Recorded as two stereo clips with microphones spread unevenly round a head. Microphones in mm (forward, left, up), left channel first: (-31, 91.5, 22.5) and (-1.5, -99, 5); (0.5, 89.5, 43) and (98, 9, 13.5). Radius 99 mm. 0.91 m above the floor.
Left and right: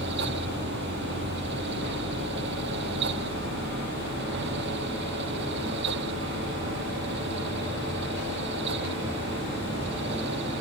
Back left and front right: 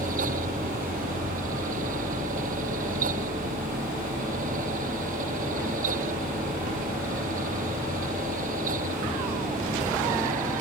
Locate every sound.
0.0 s a fan: 50° right